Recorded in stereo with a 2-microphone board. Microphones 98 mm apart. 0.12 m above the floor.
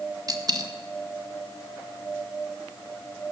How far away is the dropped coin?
About 1.8 m.